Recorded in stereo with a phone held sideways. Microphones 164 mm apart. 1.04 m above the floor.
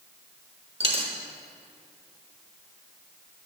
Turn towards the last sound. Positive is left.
turn(degrees=-35)  # may be behind; listen again after turning